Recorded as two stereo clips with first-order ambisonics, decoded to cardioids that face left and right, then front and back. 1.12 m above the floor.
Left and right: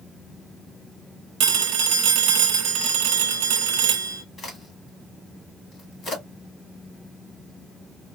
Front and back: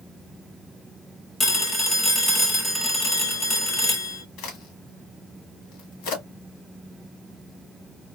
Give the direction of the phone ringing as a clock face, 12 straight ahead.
2 o'clock.